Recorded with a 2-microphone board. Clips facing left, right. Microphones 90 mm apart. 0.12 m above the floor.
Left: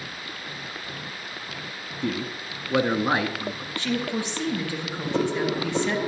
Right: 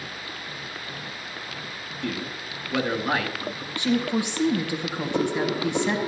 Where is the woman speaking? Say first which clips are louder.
Right 4 dB; 20° right (ahead or behind), 2 m.